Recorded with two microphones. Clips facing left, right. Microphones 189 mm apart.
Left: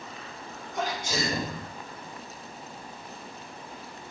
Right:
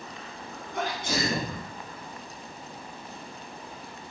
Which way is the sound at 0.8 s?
60° right (ahead or behind).